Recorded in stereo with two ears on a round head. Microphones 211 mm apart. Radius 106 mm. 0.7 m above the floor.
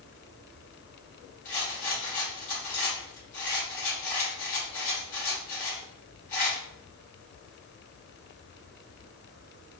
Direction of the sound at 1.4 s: 35° left (ahead or behind).